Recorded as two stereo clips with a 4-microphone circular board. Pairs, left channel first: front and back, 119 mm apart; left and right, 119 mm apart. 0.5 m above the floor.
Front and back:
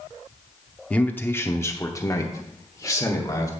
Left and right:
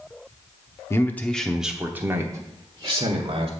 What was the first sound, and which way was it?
A man speaking, 65° left.